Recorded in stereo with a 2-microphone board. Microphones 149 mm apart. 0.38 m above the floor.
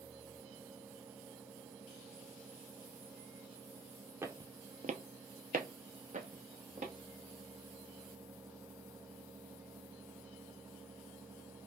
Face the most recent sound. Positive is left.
turn(degrees=-50)  # may be behind; listen again after turning